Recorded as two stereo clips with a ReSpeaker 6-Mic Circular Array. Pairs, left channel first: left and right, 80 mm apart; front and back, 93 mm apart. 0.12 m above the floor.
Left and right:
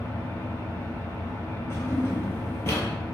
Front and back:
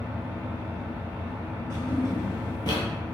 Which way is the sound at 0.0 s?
115° left.